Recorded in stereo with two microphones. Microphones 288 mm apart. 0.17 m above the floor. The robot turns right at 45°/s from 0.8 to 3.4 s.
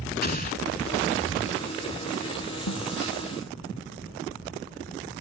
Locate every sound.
0.2 s an explosion: 35° left (ahead or behind)
2.7 s a snare drum: 80° left; by 2.9 s 75° left (ahead or behind)